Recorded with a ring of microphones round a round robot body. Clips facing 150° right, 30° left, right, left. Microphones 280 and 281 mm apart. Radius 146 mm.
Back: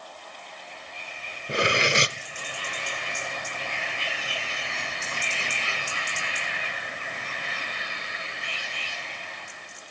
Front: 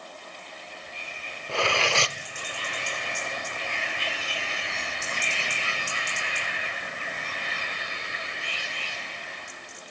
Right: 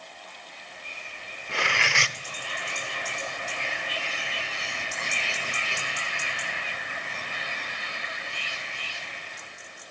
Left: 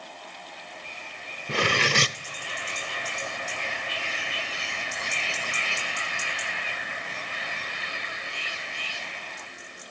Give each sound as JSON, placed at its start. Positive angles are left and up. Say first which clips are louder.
{"t": 1.5, "sound": "cutlery clinking", "louder": "back 2 dB, left 7 dB", "azimuth_deg": 140, "distance_m": 0.6}